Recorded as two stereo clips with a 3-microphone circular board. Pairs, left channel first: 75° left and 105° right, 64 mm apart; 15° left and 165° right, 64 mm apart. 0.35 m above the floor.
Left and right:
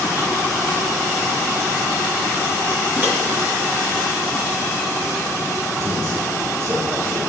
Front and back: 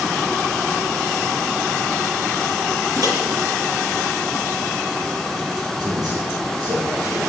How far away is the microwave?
About 3.5 m.